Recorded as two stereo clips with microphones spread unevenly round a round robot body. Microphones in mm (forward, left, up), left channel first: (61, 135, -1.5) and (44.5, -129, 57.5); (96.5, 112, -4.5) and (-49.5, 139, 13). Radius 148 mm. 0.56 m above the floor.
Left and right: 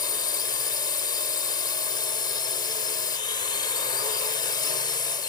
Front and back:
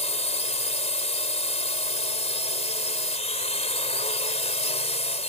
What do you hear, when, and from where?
0.0 s a drone: 25° left